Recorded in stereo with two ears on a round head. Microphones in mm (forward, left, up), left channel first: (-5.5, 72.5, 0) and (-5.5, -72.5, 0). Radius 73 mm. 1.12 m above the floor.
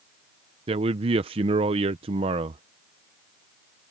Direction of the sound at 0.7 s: 35° right (ahead or behind).